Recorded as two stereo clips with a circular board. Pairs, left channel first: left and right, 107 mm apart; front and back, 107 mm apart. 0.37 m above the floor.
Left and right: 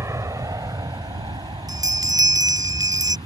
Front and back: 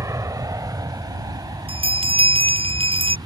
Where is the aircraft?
135° right; by 3.3 s 130° right.